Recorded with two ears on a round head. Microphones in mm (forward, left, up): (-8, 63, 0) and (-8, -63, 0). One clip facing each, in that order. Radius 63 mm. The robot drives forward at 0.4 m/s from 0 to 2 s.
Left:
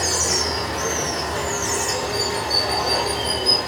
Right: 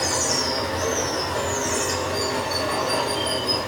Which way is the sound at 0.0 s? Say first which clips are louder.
Even; 50° left (ahead or behind).